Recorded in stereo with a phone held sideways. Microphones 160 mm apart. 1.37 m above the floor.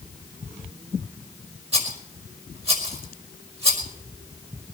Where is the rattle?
40° right (ahead or behind), 5 m.